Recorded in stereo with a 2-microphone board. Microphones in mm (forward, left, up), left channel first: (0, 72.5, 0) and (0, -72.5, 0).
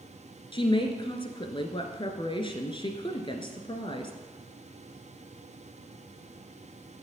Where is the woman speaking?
35° left (ahead or behind), 1.3 m.